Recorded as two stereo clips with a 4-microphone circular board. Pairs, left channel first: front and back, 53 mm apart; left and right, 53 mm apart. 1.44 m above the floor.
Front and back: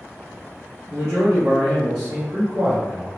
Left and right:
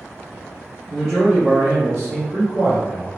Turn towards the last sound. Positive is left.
turn(degrees=-125)